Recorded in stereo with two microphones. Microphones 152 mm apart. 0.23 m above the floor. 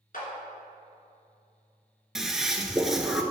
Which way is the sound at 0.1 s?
65° left (ahead or behind).